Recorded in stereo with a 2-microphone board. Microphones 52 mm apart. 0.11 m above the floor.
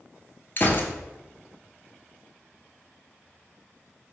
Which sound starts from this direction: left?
A gunshot, at 0.6 s.